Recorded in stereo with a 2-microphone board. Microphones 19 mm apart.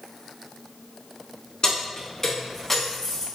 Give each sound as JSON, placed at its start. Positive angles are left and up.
{"t": 1.6, "sound": "keys jangling", "side_deg": 40, "distance_m": 1.4}